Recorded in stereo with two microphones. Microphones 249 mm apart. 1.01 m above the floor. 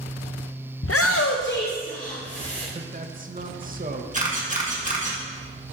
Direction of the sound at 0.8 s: 55° left (ahead or behind).